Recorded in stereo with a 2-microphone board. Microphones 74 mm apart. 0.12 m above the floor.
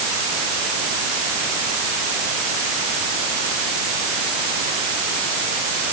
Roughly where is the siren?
I don't hear a siren.